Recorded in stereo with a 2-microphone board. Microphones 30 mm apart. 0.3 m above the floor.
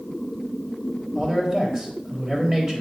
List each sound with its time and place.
1.1 s a man speaking: 25° right (ahead or behind), 1.3 m